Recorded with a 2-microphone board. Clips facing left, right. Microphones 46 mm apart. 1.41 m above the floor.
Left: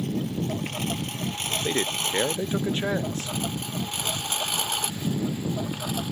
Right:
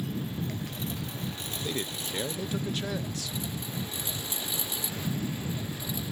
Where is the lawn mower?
70° left (ahead or behind); by 6.1 s 65° left (ahead or behind).